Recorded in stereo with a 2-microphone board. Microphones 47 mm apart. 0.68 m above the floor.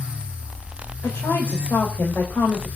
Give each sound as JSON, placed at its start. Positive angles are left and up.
{"t": 1.0, "sound": "a woman speaking", "side_deg": 60, "distance_m": 3.5}